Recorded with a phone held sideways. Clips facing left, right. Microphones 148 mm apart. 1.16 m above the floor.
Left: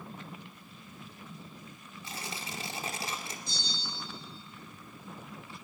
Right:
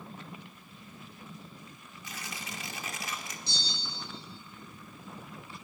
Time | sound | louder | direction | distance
2.0 | tearing paper | left 2 dB | 30° left (ahead or behind) | 2 m
3.5 | a bell | even | 75° right (ahead or behind) | 7.5 m